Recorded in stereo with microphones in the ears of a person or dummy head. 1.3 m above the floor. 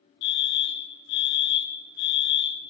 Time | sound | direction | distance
0.2 | a fire alarm | 50° left (ahead or behind) | 2 m